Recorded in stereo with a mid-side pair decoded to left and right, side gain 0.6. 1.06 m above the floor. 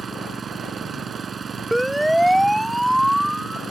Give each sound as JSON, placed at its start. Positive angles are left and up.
{"t": 0.0, "sound": "an engine running", "azimuth_deg": -30}
{"t": 1.7, "sound": "a siren", "azimuth_deg": 0}